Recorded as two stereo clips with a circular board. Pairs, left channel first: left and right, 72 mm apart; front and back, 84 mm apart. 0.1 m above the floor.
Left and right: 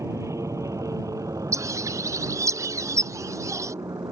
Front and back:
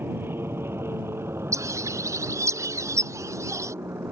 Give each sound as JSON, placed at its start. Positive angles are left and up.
{"t": 0.0, "sound": "an aircraft", "azimuth_deg": -120}
{"t": 1.5, "sound": "a bird", "azimuth_deg": -130}